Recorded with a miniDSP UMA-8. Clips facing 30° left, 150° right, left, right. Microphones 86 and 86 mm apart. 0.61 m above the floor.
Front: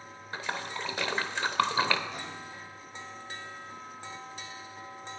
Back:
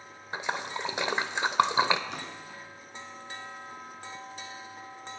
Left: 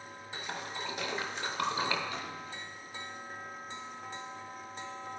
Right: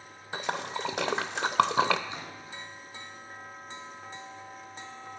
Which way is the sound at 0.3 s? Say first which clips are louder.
Back 3 dB, right 8 dB; 80° right.